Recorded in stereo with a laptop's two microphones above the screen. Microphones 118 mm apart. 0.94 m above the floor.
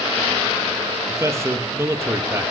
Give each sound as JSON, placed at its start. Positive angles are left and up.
{"t": 1.1, "sound": "a man speaking", "side_deg": -25, "distance_m": 1.3}